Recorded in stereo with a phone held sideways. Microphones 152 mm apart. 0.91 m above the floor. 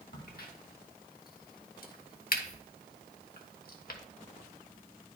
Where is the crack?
70° left (ahead or behind), 0.9 m.